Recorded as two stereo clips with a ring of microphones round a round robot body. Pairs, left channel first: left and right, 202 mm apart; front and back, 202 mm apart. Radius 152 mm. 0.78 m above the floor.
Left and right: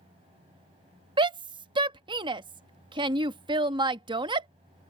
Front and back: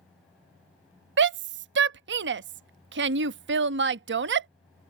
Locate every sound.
1.2 s a shout: 160° right